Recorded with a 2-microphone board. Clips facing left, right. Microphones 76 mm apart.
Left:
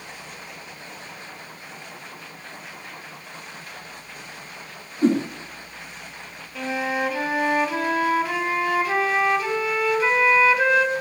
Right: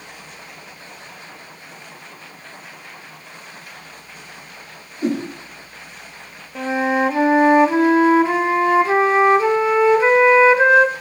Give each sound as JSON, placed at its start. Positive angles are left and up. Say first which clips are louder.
{"t": 5.0, "sound": "a whoosh", "louder": "left 2 dB", "side_deg": 35, "distance_m": 3.5}
{"t": 6.5, "sound": "a flute", "louder": "right 6 dB", "side_deg": -30, "distance_m": 0.7}